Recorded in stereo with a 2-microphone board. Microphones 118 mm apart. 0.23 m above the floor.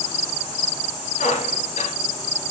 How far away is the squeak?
About 2.5 m.